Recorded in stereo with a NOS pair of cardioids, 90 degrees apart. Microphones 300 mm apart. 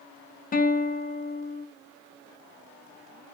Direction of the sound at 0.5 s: 30° left.